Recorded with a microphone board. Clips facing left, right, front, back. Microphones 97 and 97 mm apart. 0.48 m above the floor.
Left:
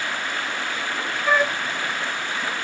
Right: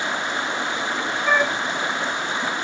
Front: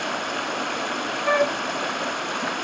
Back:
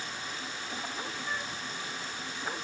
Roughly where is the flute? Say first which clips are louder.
Even, front 21 dB; ahead.